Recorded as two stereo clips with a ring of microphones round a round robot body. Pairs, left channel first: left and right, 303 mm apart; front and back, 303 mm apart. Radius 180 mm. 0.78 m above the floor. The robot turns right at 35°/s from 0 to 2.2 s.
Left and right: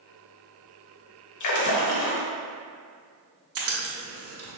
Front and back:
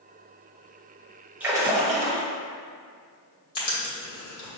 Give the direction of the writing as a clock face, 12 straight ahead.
1 o'clock.